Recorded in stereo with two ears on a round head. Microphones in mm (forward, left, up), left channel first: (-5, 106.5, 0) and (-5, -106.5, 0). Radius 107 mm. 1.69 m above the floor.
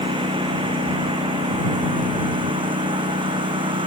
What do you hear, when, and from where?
0.0 s a lawn mower: 20° right (ahead or behind)